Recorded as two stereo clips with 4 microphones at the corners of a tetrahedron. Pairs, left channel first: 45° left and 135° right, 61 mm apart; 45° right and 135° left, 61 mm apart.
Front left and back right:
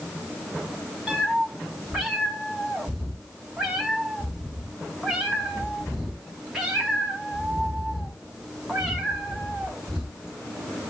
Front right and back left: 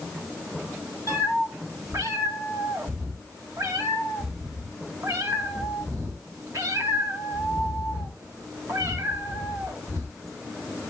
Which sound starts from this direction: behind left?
A cat meowing, at 1.1 s.